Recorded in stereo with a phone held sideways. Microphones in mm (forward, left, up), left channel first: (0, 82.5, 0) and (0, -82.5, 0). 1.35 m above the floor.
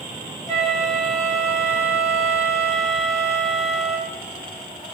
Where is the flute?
20° left (ahead or behind), 1.1 m.